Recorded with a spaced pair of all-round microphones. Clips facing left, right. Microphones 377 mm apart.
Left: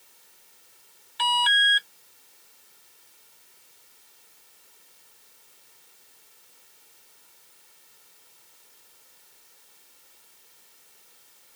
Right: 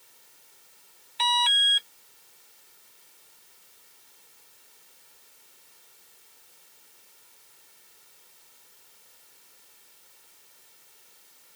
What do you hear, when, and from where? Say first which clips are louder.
1.2 s an alarm: left 1 dB; 25° left (ahead or behind)